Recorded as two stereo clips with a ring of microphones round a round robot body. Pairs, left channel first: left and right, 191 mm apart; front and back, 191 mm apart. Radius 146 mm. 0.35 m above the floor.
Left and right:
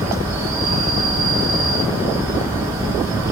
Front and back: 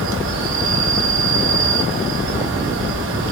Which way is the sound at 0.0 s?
165° right.